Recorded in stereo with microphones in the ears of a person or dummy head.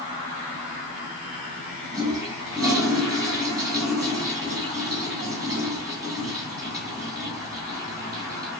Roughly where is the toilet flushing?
Centre.